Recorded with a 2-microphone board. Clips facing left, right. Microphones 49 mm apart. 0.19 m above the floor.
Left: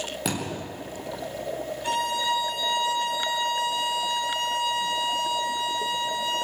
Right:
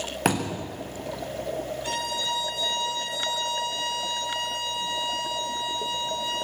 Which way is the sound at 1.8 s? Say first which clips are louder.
Left 7 dB; 25° left (ahead or behind).